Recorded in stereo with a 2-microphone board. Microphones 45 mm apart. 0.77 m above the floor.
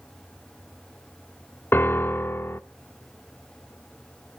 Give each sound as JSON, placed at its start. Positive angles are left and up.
{"t": 1.7, "sound": "a piano", "side_deg": 55, "distance_m": 0.6}